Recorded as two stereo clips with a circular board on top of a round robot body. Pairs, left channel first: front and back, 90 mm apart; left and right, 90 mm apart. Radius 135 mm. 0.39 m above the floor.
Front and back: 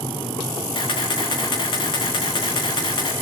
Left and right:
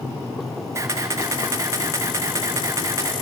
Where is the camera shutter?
30° right, 6.5 m.